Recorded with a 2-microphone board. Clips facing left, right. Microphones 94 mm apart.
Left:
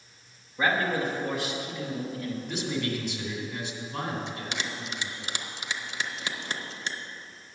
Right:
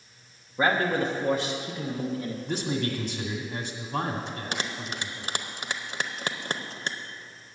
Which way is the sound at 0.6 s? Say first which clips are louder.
Right 2 dB; 30° right (ahead or behind).